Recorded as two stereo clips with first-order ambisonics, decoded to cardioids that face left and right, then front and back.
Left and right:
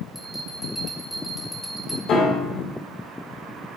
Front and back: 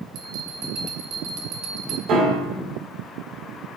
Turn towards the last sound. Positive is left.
turn(degrees=135)